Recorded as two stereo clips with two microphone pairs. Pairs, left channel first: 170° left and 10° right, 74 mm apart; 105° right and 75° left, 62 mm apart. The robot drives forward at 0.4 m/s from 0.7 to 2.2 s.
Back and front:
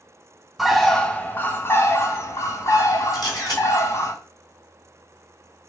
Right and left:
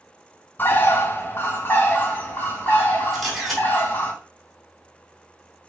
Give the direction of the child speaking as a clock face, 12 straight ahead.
I don't hear a child speaking.